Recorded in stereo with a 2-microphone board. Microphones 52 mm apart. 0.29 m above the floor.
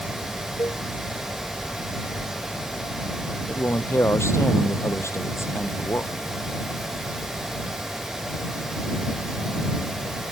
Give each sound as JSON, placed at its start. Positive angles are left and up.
{"t": 0.6, "sound": "a cowbell", "side_deg": 75}
{"t": 3.5, "sound": "a man speaking", "side_deg": 60}